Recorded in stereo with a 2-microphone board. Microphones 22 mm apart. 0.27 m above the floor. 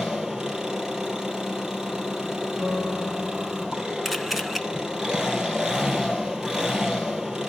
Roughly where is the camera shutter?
Centre.